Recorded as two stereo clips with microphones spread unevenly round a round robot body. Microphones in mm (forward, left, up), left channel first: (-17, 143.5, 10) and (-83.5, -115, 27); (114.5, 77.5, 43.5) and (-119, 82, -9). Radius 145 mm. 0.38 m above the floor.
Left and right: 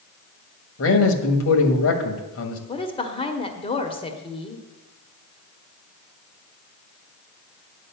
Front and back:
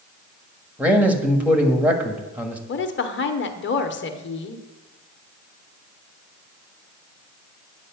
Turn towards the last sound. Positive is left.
turn(degrees=20)